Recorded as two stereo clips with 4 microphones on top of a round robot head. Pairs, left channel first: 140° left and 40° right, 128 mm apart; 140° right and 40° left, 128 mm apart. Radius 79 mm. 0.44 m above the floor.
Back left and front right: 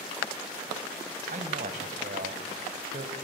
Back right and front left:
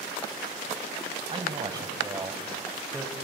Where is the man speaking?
10° right, 3 m; by 3.1 s 45° right, 3 m.